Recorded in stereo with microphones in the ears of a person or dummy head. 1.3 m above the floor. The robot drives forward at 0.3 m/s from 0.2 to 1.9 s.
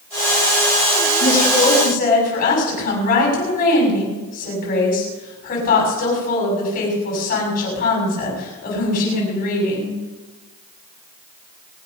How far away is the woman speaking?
About 7 m.